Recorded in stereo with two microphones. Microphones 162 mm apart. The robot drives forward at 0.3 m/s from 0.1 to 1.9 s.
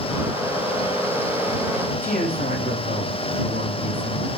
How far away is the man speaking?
About 8.5 m.